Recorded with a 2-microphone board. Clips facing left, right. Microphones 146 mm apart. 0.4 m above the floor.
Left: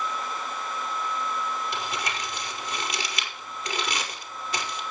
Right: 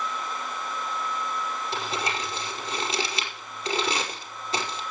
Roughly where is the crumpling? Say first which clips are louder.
Right 2 dB; right.